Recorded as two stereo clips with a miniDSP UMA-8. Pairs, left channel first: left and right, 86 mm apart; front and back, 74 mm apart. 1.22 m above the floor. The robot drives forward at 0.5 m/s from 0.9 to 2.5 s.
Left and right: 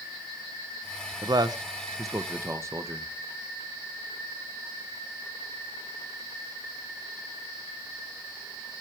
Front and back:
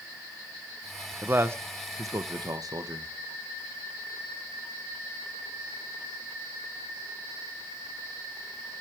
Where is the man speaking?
120° right, 0.8 m; by 3.1 s 145° right, 1.2 m.